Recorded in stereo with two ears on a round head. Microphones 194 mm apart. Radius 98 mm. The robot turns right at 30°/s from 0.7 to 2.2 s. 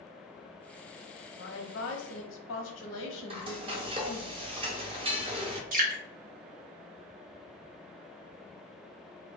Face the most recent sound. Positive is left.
turn(degrees=-40)  # may be behind; listen again after turning